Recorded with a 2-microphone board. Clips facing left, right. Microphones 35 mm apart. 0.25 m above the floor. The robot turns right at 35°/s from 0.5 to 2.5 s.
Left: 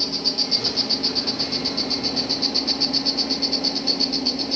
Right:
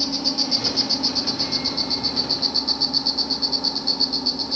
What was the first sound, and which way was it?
An insect, 15° left.